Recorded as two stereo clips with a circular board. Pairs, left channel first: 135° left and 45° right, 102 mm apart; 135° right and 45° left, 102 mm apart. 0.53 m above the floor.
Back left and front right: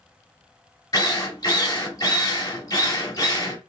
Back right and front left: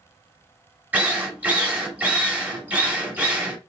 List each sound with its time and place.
0.9 s a drill: 110° left, 1.1 m